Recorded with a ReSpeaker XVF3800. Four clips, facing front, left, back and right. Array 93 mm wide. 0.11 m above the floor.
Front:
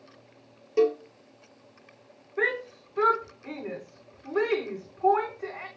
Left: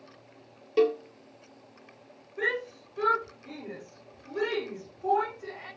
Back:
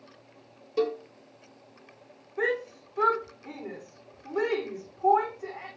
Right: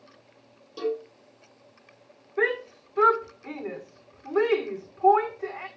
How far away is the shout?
About 8.5 m.